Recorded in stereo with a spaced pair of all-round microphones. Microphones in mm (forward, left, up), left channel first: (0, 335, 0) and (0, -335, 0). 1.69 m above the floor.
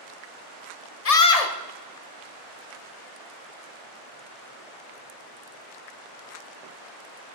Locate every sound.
1.1 s a scream: 65° left (ahead or behind), 0.9 m